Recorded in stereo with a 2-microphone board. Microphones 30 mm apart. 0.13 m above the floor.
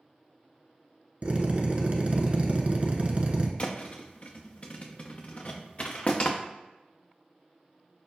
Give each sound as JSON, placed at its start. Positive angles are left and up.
{"t": 1.2, "sound": "a drill", "side_deg": -45, "distance_m": 0.6}
{"t": 3.6, "sound": "a thud", "side_deg": 35, "distance_m": 0.6}